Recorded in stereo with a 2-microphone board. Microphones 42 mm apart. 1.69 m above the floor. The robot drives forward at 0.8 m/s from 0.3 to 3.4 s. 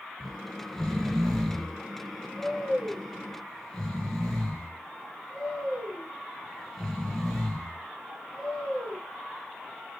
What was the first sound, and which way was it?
Snoring, 10° left (ahead or behind).